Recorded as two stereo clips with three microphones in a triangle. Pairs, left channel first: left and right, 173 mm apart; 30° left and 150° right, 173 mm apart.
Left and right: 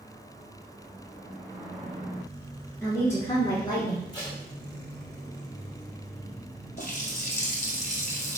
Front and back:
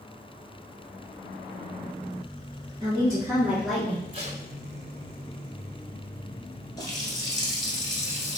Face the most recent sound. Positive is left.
turn(degrees=85)